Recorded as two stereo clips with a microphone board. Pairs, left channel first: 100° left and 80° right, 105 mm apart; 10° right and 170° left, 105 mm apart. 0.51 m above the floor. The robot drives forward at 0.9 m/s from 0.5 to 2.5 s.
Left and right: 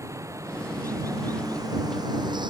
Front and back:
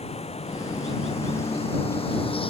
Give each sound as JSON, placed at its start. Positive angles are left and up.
{"t": 0.0, "sound": "running water", "azimuth_deg": -20}